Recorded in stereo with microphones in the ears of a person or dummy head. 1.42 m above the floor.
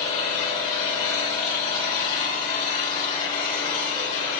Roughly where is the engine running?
Left.